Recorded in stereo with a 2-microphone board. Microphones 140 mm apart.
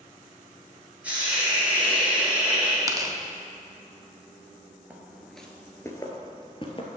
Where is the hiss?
10° right (ahead or behind), 2.5 m.